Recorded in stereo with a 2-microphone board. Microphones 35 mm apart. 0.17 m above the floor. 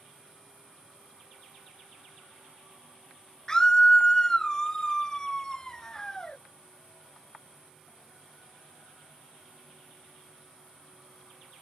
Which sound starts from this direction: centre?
A scream, at 3.5 s.